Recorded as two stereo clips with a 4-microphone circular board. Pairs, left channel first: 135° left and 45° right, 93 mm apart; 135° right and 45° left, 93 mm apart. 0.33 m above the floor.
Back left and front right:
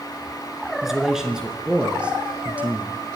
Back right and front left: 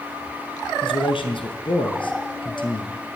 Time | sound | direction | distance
0.8 | a man speaking | 130° right | 4 m